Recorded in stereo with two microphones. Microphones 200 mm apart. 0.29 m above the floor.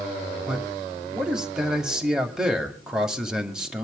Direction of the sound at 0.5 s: 5° right (ahead or behind).